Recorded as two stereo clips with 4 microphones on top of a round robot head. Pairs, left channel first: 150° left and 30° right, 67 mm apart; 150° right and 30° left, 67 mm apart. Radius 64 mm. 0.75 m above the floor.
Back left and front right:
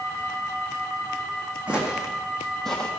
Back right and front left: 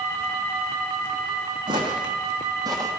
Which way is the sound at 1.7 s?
45° left.